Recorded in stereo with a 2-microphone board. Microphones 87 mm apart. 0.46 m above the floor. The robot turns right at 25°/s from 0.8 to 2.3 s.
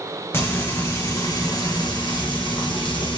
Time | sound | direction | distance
0.3 | frying | 30° left | 2.5 m